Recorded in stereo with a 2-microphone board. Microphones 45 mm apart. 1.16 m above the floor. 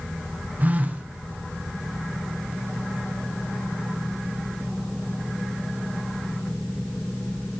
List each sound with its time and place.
0.6 s a phone buzzing: 40° right (ahead or behind), 0.9 m